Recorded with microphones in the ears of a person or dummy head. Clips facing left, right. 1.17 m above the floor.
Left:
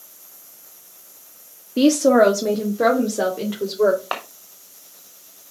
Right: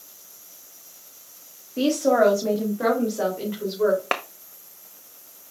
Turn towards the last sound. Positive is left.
turn(degrees=-35)  # may be behind; listen again after turning